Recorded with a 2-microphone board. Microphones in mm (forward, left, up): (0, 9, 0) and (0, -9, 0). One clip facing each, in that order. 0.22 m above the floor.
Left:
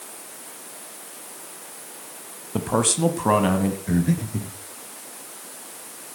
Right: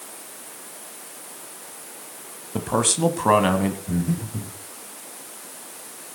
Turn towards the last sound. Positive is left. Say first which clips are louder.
# left 3 dB
turn(degrees=65)  # may be behind; listen again after turning